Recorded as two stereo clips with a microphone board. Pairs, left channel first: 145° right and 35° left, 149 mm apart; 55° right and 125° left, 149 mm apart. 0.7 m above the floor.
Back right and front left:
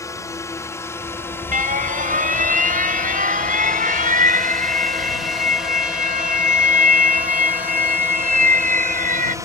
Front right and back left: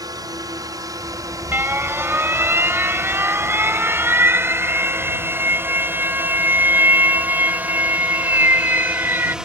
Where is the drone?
165° left; by 9.4 s 45° left.